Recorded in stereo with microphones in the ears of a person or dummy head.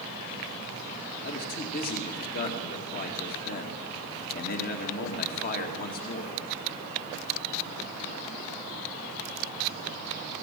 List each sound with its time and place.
1.2 s a man speaking: 50° left (ahead or behind), 2.5 m